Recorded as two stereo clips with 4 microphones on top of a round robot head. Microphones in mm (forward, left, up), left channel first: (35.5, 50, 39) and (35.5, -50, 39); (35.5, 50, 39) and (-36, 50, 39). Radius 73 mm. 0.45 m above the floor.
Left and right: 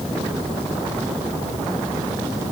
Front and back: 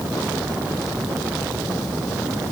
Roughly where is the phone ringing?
I don't hear a phone ringing.